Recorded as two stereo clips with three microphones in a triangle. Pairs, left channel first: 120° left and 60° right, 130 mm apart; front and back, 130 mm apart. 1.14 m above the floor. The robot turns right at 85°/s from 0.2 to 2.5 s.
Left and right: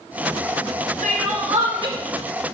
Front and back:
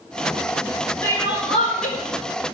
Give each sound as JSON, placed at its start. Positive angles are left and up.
{"t": 1.0, "sound": "crying", "azimuth_deg": -75, "distance_m": 5.5}